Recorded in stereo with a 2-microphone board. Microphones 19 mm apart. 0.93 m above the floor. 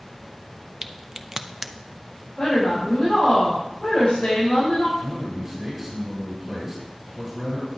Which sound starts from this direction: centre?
A crack, at 0.8 s.